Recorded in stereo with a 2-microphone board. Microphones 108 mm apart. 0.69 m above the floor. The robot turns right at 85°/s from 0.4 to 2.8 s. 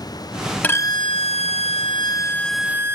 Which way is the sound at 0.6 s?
15° left.